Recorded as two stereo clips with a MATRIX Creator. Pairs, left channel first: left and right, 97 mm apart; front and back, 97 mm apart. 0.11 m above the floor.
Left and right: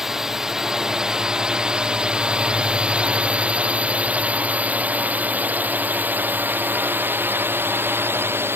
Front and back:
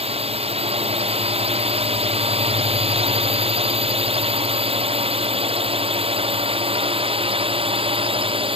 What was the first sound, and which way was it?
A drone, 175° right.